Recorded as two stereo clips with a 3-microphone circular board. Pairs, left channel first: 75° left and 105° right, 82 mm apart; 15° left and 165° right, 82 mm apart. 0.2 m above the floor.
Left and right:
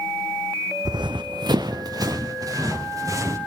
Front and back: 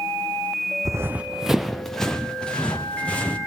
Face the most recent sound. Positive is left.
turn(degrees=-60)